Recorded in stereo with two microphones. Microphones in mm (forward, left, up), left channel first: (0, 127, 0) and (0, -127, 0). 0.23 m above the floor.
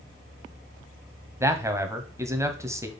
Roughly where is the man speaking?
Centre.